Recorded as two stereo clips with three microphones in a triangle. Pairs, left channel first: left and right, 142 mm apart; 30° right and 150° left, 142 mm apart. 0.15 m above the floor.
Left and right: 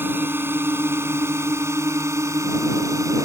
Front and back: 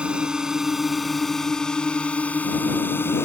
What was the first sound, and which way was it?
A drone, 140° right.